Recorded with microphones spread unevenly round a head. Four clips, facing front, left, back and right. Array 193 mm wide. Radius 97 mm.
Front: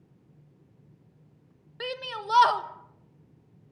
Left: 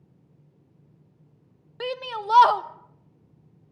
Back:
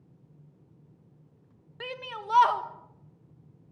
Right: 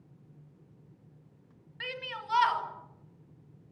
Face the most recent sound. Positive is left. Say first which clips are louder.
# left 10 dB, front 3 dB
turn(degrees=80)